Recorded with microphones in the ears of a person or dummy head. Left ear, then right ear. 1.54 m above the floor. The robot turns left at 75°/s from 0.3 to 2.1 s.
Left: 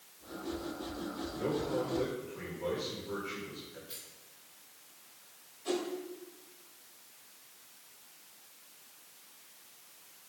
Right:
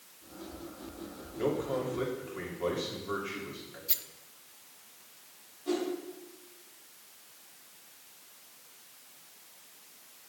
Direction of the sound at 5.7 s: 50° left (ahead or behind).